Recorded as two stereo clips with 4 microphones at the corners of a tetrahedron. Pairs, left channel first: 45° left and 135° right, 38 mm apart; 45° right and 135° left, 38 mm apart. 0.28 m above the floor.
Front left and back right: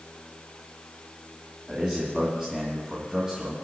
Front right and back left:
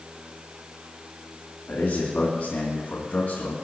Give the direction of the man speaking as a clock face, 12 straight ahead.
2 o'clock.